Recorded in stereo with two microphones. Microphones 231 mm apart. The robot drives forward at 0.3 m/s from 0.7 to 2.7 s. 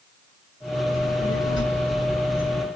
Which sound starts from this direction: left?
A child speaking, at 0.9 s.